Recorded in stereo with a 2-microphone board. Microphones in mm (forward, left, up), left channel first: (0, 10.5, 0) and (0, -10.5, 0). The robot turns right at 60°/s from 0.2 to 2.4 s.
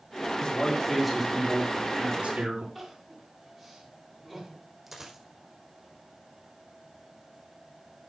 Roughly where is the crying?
Centre.